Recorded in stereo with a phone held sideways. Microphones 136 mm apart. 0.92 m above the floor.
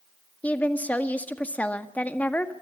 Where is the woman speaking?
10° left (ahead or behind), 1.7 m.